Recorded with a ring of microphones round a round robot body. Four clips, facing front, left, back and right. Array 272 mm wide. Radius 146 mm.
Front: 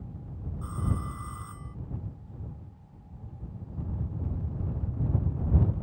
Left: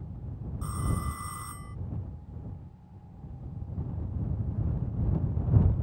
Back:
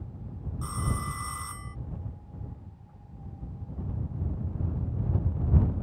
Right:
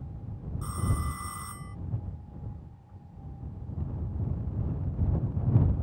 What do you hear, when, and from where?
0.6 s a phone ringing: straight behind